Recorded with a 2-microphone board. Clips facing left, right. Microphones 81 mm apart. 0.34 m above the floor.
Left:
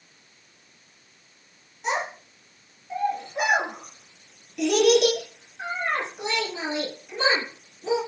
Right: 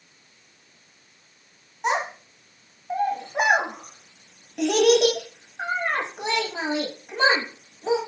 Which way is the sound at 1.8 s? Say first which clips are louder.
Right 3 dB; 55° right (ahead or behind).